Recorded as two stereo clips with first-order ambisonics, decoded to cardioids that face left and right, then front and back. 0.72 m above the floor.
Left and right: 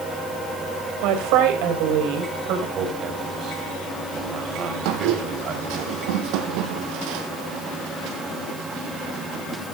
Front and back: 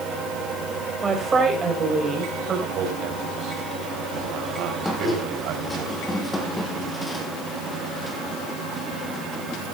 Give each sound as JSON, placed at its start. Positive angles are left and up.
{"t": 1.0, "sound": "a woman speaking", "azimuth_deg": -105, "distance_m": 4.0}
{"t": 2.8, "sound": "a man speaking", "azimuth_deg": -145, "distance_m": 3.5}
{"t": 4.8, "sound": "a squeak", "azimuth_deg": -85, "distance_m": 3.0}